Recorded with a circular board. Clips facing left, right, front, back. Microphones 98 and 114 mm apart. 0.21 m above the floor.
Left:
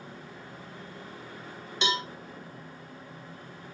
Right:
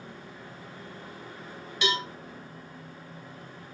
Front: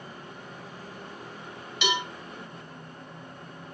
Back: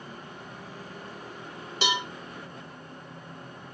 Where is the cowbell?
145° left, 0.9 m.